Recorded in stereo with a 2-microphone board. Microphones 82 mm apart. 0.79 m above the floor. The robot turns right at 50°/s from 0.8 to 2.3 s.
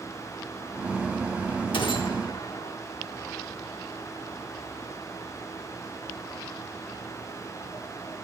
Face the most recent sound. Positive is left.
turn(degrees=65)  # may be behind; listen again after turning